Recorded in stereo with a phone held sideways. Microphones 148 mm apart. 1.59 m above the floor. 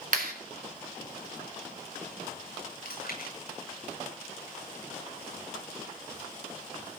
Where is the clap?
70° right (ahead or behind), 2.5 m.